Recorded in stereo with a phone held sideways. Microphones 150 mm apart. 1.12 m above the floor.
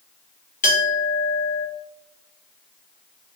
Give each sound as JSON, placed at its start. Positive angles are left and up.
{"t": 0.6, "sound": "a clink", "side_deg": 60, "distance_m": 0.9}